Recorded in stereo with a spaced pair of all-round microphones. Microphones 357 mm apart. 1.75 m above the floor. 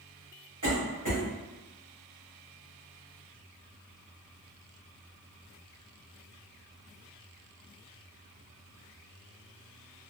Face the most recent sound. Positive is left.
turn(degrees=-55)  # may be behind; listen again after turning